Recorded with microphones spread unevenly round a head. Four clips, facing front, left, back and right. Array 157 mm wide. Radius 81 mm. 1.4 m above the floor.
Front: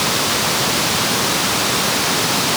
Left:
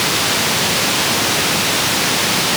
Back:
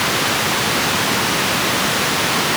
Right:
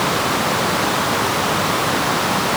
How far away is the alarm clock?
No alarm clock in this recording.